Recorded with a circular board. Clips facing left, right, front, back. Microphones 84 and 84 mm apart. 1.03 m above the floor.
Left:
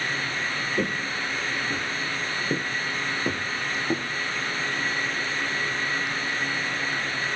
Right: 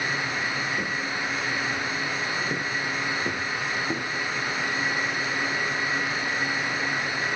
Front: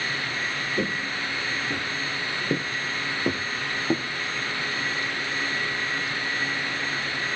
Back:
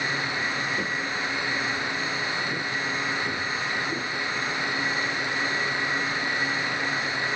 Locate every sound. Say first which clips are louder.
0.8 s footsteps: left 1 dB, front 1 dB; 50° left, 1.7 m; by 4.0 s 10° left, 4 m